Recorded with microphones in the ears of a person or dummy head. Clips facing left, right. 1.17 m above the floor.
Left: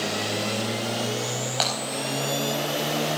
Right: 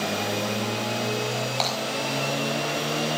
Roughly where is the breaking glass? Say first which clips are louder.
Left 2 dB; centre.